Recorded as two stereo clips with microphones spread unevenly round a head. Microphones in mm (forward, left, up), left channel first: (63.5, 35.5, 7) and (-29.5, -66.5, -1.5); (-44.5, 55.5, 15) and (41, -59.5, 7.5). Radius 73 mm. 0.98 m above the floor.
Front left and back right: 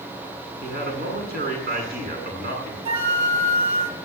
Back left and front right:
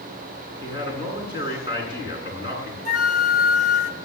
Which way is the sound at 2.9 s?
170° left.